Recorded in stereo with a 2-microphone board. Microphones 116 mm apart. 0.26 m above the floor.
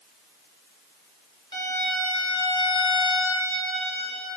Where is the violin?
45° left (ahead or behind), 1.0 m.